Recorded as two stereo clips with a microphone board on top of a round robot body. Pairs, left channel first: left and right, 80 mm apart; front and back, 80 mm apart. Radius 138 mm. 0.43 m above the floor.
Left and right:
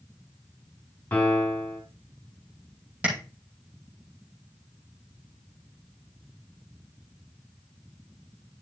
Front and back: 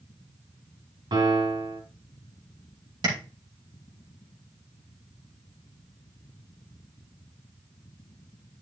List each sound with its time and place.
1.1 s a piano: 160° left, 1.9 m
3.0 s tapping: 160° right, 4.5 m